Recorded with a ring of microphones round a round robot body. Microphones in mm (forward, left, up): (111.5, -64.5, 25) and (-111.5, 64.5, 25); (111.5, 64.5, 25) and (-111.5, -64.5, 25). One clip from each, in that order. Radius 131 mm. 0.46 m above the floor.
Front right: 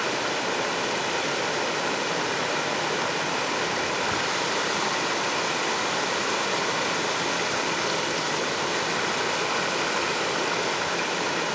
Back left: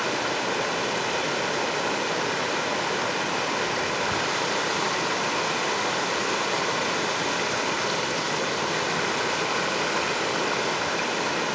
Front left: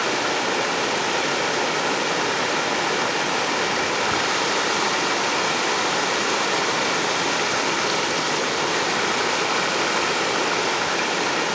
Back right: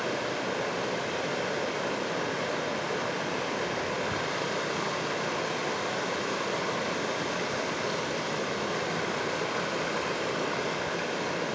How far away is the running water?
About 1.0 m.